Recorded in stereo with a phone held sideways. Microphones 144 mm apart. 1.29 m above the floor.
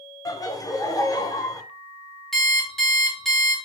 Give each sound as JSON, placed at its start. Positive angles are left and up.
{"t": 0.2, "sound": "laughter", "side_deg": 25, "distance_m": 0.6}
{"t": 2.3, "sound": "an alarm clock", "side_deg": 0, "distance_m": 1.3}